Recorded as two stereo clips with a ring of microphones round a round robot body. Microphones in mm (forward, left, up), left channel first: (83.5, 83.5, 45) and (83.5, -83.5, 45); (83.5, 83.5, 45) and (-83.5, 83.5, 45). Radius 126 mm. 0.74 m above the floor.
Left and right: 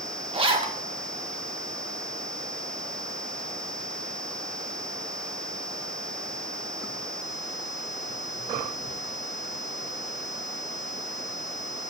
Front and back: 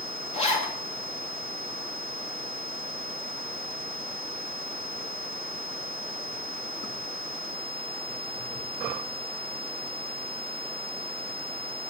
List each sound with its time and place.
0.3 s a zipper: 45° right, 1.5 m